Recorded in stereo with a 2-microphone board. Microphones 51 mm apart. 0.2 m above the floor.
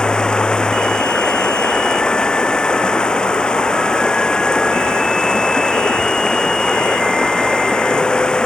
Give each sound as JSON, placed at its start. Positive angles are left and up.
{"t": 0.0, "sound": "running water", "side_deg": 15}